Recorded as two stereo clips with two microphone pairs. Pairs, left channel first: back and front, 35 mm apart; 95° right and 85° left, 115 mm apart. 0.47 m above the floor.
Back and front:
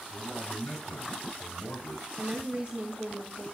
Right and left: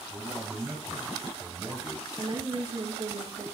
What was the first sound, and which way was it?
A man speaking, 155° left.